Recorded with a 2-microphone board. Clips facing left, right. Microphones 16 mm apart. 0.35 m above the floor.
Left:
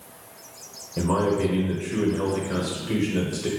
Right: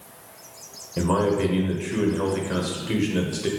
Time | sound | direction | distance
1.0 | a man speaking | 20° right (ahead or behind) | 1.0 m